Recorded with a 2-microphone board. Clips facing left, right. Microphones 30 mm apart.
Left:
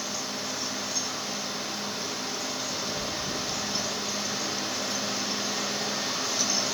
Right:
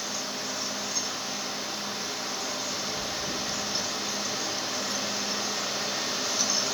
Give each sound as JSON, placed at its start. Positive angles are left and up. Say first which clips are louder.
{"t": 3.0, "sound": "chewing", "louder": "even", "side_deg": 30, "distance_m": 3.0}